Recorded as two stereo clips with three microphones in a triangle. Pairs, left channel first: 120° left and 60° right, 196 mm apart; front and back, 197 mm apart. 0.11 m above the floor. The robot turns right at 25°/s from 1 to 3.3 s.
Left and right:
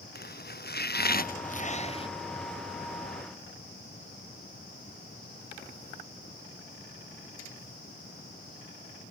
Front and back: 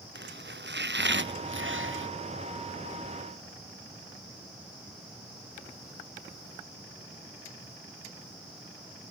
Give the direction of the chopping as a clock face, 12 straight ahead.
7 o'clock.